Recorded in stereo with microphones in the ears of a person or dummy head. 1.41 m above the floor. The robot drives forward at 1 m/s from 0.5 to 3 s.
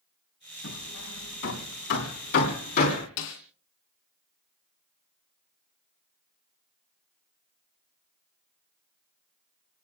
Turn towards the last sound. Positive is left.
turn(degrees=55)  # may be behind; listen again after turning